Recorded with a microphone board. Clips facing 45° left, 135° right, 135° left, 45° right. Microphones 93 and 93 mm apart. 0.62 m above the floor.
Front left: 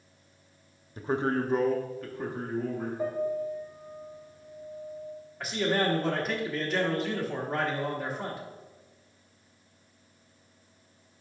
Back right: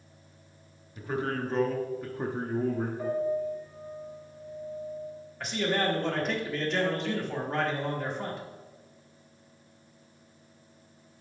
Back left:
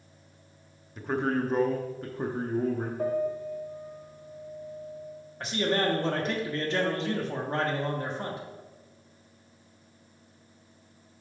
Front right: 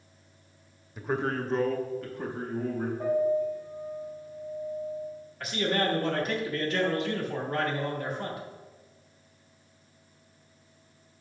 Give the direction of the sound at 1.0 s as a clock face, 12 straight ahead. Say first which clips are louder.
Front left 4 dB, back left 2 dB; 11 o'clock.